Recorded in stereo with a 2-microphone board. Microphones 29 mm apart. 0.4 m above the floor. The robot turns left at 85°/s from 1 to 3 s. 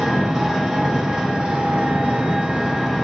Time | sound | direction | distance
0.0 | an engine running | 5° right | 1.3 m